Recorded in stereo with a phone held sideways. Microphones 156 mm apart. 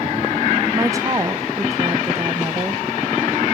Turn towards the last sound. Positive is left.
turn(degrees=-20)  # may be behind; listen again after turning